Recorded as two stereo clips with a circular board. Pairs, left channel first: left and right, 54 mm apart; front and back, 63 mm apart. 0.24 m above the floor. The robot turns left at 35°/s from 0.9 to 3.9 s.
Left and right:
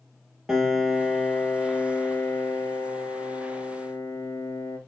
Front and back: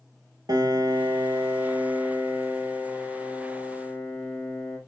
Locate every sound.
0.5 s a piano: 170° right, 1.0 m; by 4.8 s 85° left, 1.0 m